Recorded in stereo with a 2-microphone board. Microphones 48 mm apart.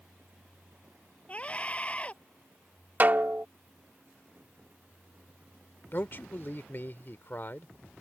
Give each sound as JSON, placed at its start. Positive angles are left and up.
{"t": 1.3, "sound": "a scream", "side_deg": 25}
{"t": 3.0, "sound": "a snare drum", "side_deg": -40}
{"t": 5.9, "sound": "a man speaking", "side_deg": 40}